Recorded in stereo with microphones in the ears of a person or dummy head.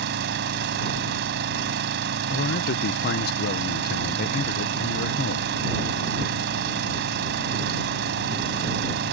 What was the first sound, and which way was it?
An engine running, 65° right (ahead or behind).